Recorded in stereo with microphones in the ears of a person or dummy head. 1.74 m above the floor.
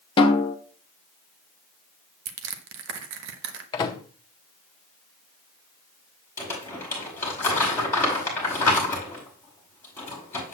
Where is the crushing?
65° right (ahead or behind), 1.1 m.